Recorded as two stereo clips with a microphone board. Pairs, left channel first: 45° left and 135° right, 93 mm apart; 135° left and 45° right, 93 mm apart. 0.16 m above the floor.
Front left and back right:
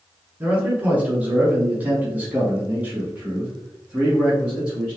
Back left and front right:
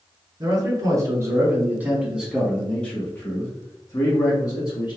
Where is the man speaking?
65° right, 1.6 m; by 5.0 s 145° left, 1.7 m.